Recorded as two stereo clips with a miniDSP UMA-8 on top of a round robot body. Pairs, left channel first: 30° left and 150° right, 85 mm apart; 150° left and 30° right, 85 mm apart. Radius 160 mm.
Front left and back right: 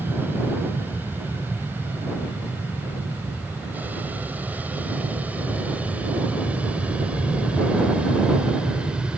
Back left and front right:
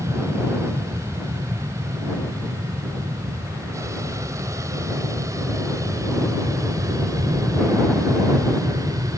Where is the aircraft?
85° right; by 9.2 s 70° right.